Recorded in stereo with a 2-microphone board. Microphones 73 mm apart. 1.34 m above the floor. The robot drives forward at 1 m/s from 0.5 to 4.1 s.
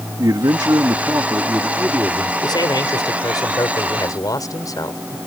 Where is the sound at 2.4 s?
75° left (ahead or behind); by 5.2 s 55° left (ahead or behind).